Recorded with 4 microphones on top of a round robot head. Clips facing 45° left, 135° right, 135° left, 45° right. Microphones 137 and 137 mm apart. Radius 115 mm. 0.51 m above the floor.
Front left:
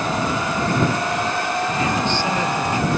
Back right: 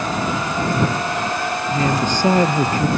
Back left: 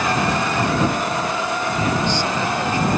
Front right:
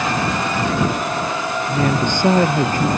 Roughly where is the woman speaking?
Right.